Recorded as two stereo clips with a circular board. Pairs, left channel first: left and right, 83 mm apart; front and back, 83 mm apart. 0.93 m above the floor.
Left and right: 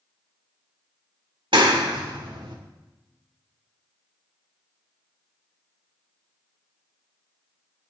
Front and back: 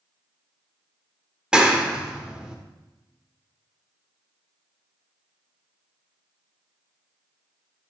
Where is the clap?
100° right, 1.9 m.